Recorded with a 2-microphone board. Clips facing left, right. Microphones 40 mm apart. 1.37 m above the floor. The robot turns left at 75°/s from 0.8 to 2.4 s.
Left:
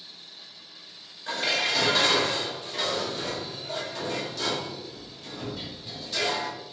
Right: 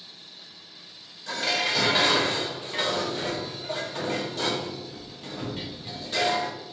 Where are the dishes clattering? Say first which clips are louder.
Even; 25° left, 0.8 m; by 6.5 s 60° right, 0.8 m.